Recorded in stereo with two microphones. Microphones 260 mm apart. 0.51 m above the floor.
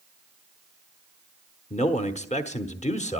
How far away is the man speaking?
About 1.1 m.